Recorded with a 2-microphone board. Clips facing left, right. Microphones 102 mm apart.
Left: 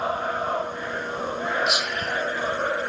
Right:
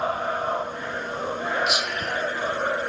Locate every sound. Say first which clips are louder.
1.7 s whispering: even; centre (ahead or behind), 0.7 m